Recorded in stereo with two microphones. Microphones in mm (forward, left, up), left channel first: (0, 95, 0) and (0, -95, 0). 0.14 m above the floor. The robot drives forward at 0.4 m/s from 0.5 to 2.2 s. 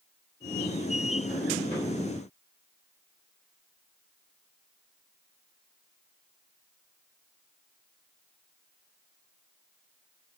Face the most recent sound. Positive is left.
No sound to turn to.